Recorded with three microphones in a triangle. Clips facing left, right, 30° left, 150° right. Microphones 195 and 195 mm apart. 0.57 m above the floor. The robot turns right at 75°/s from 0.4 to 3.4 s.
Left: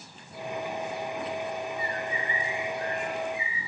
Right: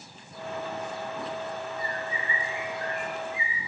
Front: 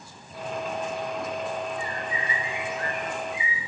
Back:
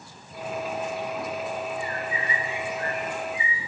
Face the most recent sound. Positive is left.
turn(degrees=55)